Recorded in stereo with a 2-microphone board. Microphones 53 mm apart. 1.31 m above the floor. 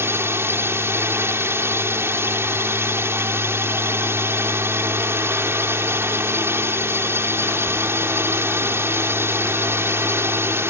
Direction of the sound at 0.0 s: 60° right (ahead or behind).